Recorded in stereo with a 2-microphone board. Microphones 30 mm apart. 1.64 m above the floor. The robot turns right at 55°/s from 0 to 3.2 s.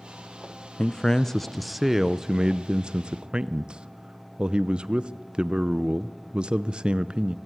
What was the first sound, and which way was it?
A man speaking, 130° left.